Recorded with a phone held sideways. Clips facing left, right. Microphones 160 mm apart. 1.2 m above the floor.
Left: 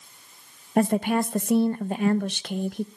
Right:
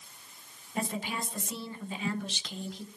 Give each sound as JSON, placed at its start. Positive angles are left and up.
{"t": 0.8, "sound": "a woman speaking", "side_deg": 55, "distance_m": 0.8}